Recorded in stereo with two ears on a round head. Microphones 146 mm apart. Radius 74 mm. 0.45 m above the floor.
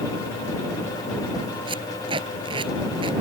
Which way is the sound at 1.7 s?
30° right (ahead or behind).